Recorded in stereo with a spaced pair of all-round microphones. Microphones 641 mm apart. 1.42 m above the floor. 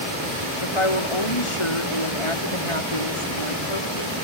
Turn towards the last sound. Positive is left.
turn(degrees=50)  # may be behind; listen again after turning